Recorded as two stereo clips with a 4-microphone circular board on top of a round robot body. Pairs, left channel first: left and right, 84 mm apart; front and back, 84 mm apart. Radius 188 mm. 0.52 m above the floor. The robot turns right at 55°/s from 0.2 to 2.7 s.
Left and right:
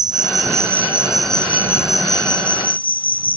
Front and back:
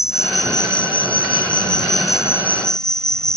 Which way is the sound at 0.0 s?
55° right.